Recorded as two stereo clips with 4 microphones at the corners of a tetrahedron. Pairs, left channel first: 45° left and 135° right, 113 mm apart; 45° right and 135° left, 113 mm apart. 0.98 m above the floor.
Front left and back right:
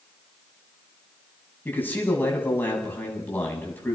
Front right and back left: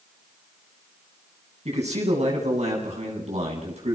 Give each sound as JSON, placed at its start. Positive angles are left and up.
{"t": 1.6, "sound": "a man speaking", "azimuth_deg": 120, "distance_m": 8.0}